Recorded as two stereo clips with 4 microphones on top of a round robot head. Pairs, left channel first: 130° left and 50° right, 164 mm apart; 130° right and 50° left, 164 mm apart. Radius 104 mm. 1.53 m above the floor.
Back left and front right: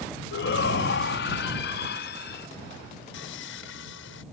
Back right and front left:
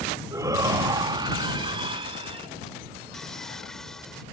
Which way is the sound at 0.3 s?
120° left.